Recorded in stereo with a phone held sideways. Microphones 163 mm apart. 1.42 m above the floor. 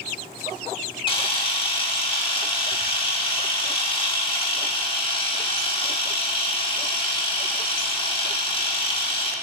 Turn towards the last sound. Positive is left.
turn(degrees=30)  # may be behind; listen again after turning